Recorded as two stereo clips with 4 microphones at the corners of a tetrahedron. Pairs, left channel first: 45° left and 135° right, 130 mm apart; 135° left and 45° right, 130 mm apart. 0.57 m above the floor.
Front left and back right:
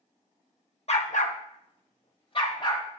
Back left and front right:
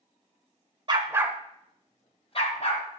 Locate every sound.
0.9 s a dog barking: 10° left, 0.8 m; by 2.8 s 100° left, 1.5 m